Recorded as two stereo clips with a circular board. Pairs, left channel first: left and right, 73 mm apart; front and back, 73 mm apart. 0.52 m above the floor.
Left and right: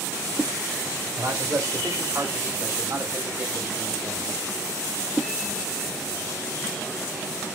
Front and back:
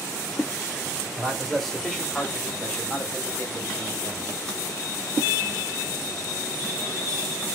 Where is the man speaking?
90° right, 2 m; by 4.4 s 5° right, 1.7 m.